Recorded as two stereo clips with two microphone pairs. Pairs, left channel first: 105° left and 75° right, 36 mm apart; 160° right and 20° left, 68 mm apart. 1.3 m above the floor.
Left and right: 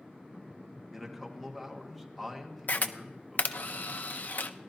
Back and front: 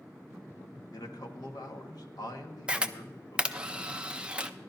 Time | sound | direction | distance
0.9 | a man speaking | 170° right | 1.7 m
2.7 | a camera shutter | 90° left | 0.5 m